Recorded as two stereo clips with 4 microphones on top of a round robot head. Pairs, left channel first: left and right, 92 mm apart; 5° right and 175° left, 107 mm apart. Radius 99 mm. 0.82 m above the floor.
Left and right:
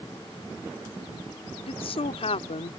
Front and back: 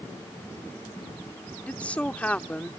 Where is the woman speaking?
75° left.